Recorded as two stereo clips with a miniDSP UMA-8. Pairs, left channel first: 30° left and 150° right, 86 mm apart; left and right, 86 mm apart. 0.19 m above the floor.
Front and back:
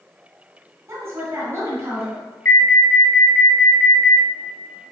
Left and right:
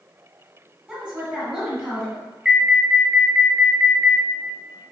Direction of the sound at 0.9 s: 165° right.